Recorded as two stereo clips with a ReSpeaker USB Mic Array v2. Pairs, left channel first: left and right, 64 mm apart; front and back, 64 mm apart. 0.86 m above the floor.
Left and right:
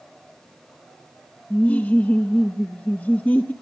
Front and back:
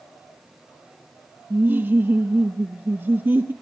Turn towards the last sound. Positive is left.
turn(degrees=140)